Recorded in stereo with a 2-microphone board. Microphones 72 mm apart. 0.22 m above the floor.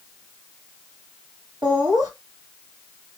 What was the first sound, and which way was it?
Laughter, 65° right (ahead or behind).